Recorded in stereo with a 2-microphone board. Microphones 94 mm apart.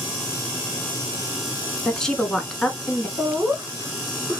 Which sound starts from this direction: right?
Laughter, at 3.2 s.